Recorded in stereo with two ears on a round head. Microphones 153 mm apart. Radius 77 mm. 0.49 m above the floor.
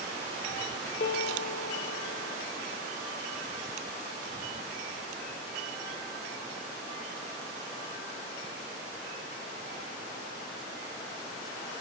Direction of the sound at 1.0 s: 60° left (ahead or behind).